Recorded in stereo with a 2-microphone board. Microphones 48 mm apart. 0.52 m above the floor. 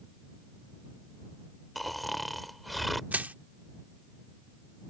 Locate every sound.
1.8 s snoring: centre (ahead or behind)
3.1 s crushing: 35° right (ahead or behind)